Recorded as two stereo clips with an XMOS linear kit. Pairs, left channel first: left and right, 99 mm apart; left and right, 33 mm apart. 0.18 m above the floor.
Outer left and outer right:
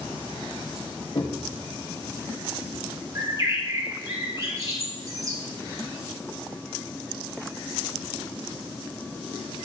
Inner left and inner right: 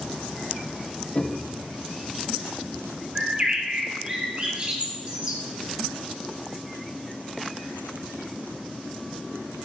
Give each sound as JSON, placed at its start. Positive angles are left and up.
{"t": 1.1, "sound": "knocking", "side_deg": 55, "distance_m": 2.5}
{"t": 3.1, "sound": "a bird", "side_deg": -35, "distance_m": 2.5}